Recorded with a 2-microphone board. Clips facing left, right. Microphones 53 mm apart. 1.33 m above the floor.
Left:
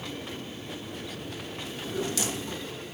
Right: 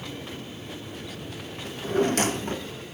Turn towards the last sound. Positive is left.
turn(degrees=-45)  # may be behind; listen again after turning